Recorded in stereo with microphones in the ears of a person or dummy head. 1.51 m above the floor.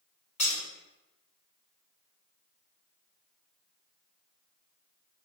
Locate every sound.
0.4 s breaking glass: 30° left (ahead or behind), 1.4 m